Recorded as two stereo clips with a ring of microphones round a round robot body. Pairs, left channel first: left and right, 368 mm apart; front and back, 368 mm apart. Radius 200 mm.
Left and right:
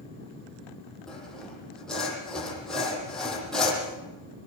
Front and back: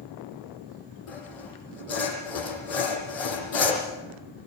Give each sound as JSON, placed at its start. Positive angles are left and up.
{"t": 1.1, "sound": "sawing", "azimuth_deg": 0, "distance_m": 8.0}